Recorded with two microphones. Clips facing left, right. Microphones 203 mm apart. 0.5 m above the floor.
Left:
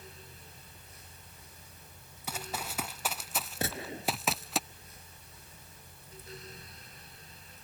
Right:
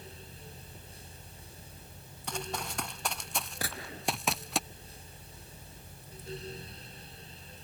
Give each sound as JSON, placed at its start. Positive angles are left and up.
{"t": 2.3, "sound": "running footsteps", "side_deg": 5}
{"t": 3.6, "sound": "a gunshot", "side_deg": 25}